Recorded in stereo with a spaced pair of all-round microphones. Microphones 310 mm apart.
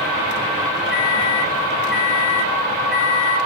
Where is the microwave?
30° right (ahead or behind), 0.8 m.